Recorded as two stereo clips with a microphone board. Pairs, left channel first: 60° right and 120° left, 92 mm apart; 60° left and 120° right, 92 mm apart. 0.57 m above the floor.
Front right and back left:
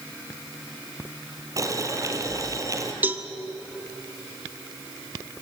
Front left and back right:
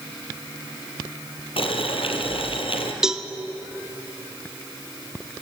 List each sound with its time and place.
1.6 s boiling: 65° left, 2.5 m
3.0 s a cowbell: 165° left, 1.2 m